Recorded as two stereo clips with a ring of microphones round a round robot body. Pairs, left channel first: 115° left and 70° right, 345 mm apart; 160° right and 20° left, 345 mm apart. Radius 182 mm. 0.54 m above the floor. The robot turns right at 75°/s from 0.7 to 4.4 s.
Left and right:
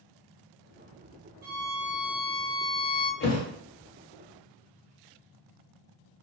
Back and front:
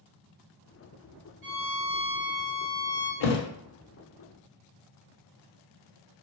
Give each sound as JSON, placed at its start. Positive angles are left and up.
{"t": 1.4, "sound": "a violin", "azimuth_deg": -5, "distance_m": 1.3}
{"t": 3.2, "sound": "a thud", "azimuth_deg": 175, "distance_m": 0.5}